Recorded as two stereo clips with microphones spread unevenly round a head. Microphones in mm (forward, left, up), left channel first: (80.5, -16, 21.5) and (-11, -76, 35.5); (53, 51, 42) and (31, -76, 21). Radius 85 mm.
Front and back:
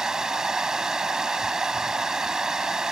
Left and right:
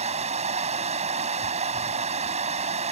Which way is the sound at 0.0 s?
65° right.